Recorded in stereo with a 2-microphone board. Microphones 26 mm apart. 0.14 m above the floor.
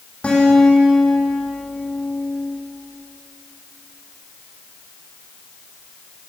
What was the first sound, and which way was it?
A guitar, 55° left (ahead or behind).